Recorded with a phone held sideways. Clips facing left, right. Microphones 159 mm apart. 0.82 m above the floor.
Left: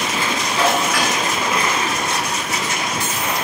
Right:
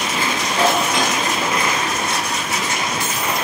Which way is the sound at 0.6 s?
20° right (ahead or behind).